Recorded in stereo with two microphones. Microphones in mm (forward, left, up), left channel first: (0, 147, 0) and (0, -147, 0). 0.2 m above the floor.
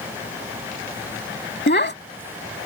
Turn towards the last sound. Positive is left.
turn(degrees=40)  # may be behind; listen again after turning